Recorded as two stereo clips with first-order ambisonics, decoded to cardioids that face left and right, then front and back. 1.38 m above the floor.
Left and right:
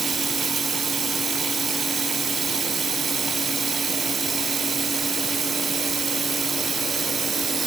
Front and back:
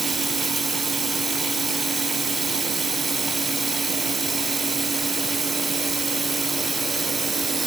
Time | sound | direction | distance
0.0 | running water | 130° right | 1.1 m